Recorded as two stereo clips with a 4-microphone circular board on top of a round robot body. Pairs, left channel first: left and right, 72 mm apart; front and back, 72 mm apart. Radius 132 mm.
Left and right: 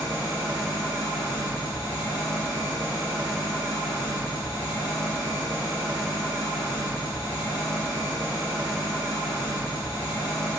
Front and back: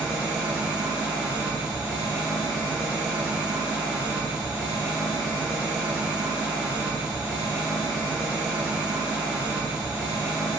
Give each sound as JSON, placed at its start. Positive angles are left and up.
{"t": 0.0, "sound": "an engine running", "azimuth_deg": 85, "distance_m": 1.9}